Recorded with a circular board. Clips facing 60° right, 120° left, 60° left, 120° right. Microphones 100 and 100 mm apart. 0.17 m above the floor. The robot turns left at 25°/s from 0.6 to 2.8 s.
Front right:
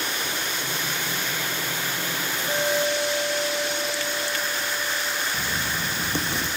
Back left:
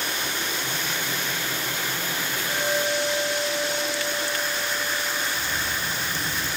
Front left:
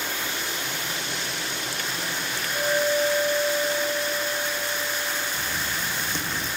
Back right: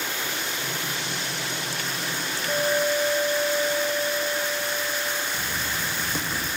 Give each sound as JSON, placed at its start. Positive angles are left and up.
{"t": 2.5, "sound": "a clink", "azimuth_deg": -115, "distance_m": 7.5}
{"t": 5.3, "sound": "writing", "azimuth_deg": -35, "distance_m": 3.5}